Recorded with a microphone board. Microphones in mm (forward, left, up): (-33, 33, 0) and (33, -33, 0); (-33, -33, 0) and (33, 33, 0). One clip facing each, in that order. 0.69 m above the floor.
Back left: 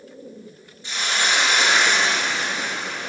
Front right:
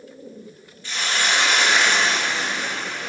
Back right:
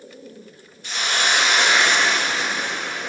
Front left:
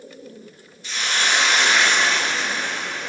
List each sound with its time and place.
0.8 s a hiss: 160° right, 1.1 m